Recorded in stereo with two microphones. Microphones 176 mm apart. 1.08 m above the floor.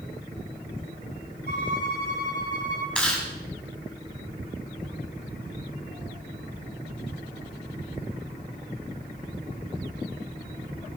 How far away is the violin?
About 10 m.